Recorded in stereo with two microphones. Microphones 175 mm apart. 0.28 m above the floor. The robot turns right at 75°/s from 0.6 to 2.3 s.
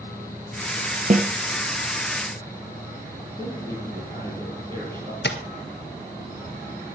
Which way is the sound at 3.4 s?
25° right (ahead or behind).